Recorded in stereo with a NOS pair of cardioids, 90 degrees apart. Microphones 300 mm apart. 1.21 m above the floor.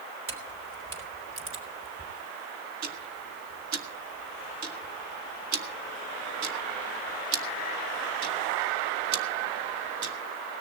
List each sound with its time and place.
0.3 s a camera shutter: 45° right, 3.5 m
2.8 s ticking: 65° right, 1.7 m